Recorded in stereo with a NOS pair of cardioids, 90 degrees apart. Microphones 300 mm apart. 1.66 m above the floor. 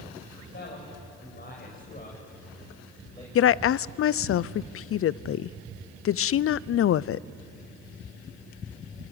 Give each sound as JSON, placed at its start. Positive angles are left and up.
{"t": 0.4, "sound": "a man speaking", "azimuth_deg": 40, "distance_m": 7.0}
{"t": 3.4, "sound": "a woman speaking", "azimuth_deg": 45, "distance_m": 0.5}